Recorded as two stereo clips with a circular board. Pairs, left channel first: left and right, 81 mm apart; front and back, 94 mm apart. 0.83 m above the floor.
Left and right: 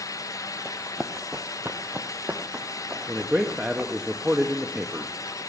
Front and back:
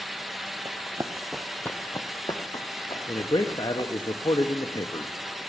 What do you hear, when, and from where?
0.7 s running footsteps: 175° right, 1.1 m; by 3.9 s 25° right, 3 m
3.1 s a man speaking: 15° right, 0.9 m